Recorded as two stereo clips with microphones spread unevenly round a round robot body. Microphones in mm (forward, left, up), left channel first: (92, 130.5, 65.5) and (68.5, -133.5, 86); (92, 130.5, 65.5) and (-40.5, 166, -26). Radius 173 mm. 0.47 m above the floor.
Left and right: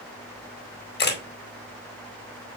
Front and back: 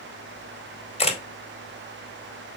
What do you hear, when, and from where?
1.0 s a camera shutter: 50° left, 2 m